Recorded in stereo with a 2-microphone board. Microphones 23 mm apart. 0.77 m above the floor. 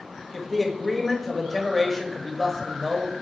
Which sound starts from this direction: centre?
A man speaking, at 0.3 s.